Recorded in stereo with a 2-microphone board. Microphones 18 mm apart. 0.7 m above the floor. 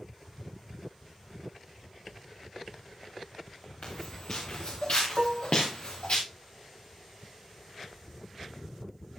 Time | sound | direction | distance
3.8 | footsteps | 80° left | 4.5 m
5.2 | dishes clattering | 40° right (ahead or behind) | 0.8 m